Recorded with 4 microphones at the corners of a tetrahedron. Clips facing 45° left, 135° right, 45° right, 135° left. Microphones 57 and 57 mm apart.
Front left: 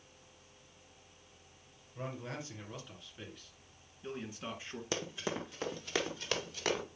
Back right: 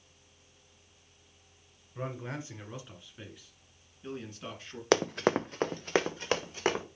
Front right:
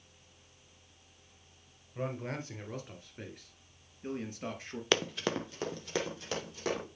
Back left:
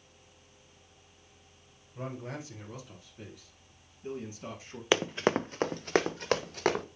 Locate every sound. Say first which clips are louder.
1.9 s a man speaking: back right 4 dB, front right 2 dB; 80° right, 2.5 m; by 4.8 s 30° right, 2 m
4.9 s running footsteps: back right 12 dB, back left 5 dB; 145° right, 0.5 m; by 6.8 s 165° left, 2 m